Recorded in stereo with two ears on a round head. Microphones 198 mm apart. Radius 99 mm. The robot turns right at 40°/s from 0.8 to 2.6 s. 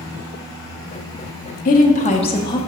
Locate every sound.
1.6 s a woman speaking: 115° left, 0.7 m; by 2.6 s 155° left, 0.7 m